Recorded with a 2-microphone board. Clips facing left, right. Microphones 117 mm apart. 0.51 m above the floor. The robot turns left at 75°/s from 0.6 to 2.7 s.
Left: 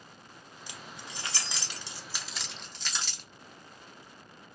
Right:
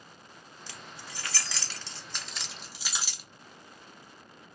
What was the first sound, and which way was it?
Keys jangling, 15° left (ahead or behind).